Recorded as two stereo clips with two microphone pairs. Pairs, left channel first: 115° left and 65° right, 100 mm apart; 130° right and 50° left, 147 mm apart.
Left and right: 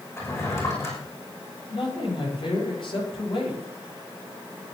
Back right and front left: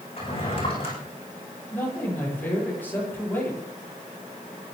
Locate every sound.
0.2 s a drawer: 175° left, 9.5 m
1.7 s a man speaking: 150° left, 9.5 m